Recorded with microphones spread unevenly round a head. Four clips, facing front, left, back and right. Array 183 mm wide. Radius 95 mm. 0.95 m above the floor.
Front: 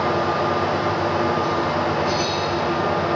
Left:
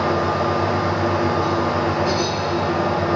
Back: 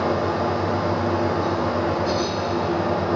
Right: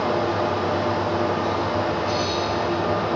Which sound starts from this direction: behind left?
A fan, at 0.0 s.